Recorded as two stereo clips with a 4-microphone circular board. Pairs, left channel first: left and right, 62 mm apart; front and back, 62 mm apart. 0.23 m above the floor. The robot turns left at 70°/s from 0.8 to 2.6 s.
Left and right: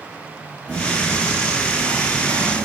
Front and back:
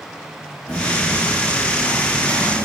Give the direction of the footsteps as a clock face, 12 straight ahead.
11 o'clock.